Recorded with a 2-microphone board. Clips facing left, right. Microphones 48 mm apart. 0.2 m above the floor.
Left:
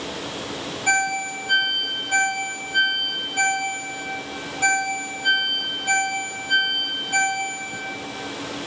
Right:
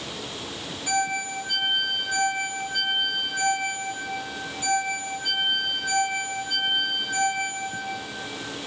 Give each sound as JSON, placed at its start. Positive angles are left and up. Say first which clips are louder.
{"t": 0.9, "sound": "a ringtone", "louder": "left 4 dB", "side_deg": 50, "distance_m": 2.5}